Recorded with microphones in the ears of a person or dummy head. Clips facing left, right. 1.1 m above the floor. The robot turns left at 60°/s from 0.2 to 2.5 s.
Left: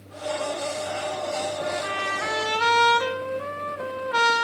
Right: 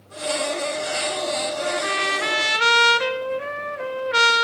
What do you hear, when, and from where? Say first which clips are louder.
1.6 s a trumpet: right 3 dB; 90° right, 1.0 m; by 4.5 s 145° right, 1.0 m